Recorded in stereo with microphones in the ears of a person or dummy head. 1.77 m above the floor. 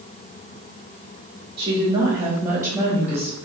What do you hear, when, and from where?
1.6 s a woman speaking: 25° right (ahead or behind), 0.8 m; by 3.4 s 5° right (ahead or behind), 1.6 m